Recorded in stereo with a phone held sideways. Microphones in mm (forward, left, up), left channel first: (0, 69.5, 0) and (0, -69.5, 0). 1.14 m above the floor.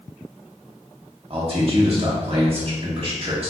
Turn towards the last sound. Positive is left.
turn(degrees=-45)  # may be behind; listen again after turning